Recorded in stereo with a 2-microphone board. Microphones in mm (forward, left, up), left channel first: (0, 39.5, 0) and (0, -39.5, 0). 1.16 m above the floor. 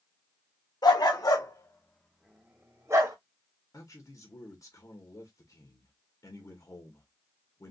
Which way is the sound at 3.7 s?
50° left (ahead or behind).